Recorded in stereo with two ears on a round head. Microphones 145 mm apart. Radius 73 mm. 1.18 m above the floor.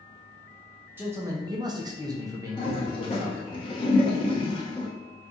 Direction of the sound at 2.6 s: 30° left (ahead or behind).